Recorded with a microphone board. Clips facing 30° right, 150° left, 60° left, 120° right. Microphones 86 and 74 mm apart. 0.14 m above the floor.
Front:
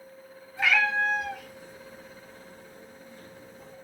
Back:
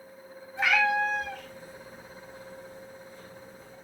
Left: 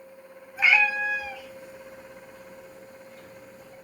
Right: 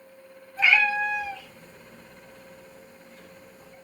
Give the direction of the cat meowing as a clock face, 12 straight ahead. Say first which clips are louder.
Even, even; 8 o'clock.